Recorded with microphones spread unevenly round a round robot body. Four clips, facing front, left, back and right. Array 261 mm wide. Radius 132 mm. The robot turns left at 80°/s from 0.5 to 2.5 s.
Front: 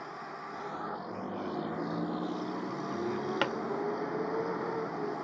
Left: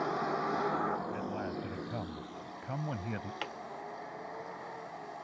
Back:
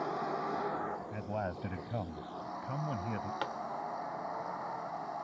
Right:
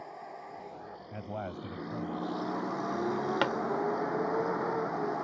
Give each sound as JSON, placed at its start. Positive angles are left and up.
{"t": 0.0, "sound": "a vehicle", "azimuth_deg": 100}
{"t": 1.1, "sound": "a man speaking", "azimuth_deg": -130}
{"t": 3.4, "sound": "a pop", "azimuth_deg": -55}